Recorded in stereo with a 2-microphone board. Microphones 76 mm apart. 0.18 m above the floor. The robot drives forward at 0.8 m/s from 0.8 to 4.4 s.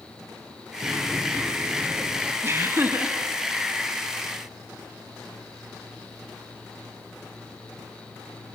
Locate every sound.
0.8 s a sliding door: 25° right (ahead or behind), 1.1 m; by 2.3 s 15° right (ahead or behind), 2 m
2.4 s laughter: 35° right (ahead or behind), 1.4 m; by 3.2 s 30° right (ahead or behind), 1.6 m